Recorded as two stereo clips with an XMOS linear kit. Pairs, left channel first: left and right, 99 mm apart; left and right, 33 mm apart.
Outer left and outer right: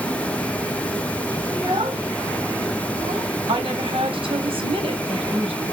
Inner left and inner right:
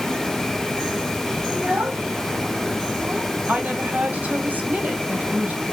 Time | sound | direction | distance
1.5 | a child speaking | 55° right (ahead or behind) | 3 m
3.5 | a woman speaking | 75° right (ahead or behind) | 3 m